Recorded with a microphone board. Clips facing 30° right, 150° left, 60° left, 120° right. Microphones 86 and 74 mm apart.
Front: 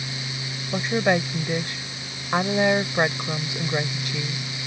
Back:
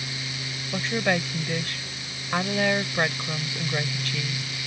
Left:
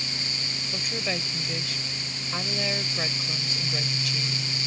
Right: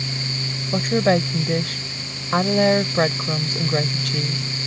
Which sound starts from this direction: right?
A woman speaking, at 0.7 s.